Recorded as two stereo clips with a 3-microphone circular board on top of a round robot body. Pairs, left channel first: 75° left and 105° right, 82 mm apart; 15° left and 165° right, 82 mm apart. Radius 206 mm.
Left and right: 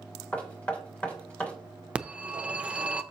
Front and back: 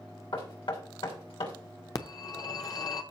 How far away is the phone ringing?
About 0.7 m.